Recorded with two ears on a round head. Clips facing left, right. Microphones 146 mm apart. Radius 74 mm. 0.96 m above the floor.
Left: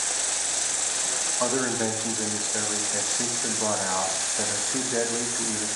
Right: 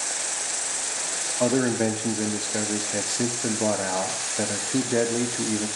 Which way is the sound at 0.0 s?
35° left (ahead or behind).